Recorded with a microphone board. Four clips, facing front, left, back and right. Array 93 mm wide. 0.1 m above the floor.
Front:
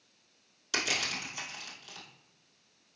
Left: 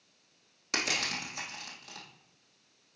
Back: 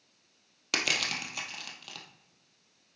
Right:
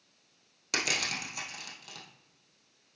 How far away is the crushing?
About 1.8 m.